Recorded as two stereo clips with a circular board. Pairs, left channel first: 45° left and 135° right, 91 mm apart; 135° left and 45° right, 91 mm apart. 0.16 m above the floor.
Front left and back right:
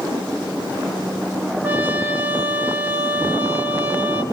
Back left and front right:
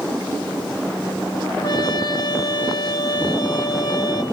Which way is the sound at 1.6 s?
160° left.